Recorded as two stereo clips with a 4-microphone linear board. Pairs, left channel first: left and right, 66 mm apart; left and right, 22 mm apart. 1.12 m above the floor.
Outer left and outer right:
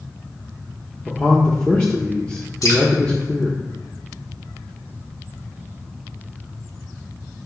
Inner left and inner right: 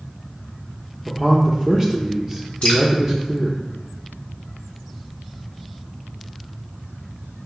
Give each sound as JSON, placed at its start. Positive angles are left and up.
{"t": 1.1, "sound": "a man speaking", "side_deg": 15, "distance_m": 1.0}
{"t": 2.6, "sound": "dripping", "side_deg": 60, "distance_m": 2.5}